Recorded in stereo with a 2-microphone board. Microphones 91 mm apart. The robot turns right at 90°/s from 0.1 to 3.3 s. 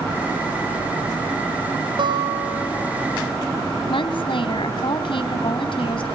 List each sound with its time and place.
2.0 s a guitar: 60° right, 2.5 m; by 3.1 s 40° left, 2.5 m
3.9 s a woman speaking: 75° left (ahead or behind), 2.5 m